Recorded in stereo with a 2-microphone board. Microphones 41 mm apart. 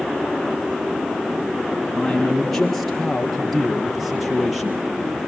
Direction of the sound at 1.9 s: 10° left (ahead or behind).